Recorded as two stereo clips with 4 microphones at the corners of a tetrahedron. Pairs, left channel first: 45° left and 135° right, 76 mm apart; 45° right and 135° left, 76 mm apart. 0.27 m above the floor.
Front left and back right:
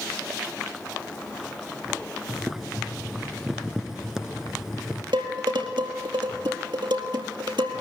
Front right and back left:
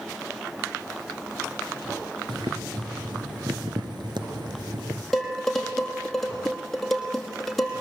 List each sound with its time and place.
2.3 s boiling: 140° left, 1.4 m
5.1 s dishes clattering: 130° right, 4.5 m